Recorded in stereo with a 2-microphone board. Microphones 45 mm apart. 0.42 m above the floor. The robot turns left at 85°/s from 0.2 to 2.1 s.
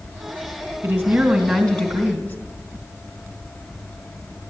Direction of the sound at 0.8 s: 130° right.